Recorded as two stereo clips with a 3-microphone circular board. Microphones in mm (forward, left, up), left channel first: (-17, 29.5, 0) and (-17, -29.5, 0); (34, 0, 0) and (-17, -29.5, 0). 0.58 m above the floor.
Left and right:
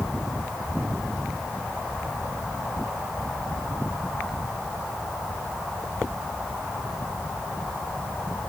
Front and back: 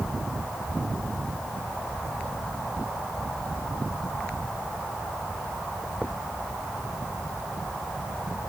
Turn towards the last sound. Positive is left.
No sound to turn to.